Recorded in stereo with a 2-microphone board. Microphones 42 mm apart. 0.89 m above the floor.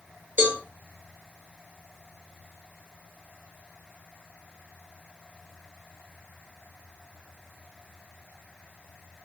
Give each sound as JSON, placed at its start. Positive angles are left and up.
{"t": 0.4, "sound": "a cowbell", "side_deg": -65, "distance_m": 0.9}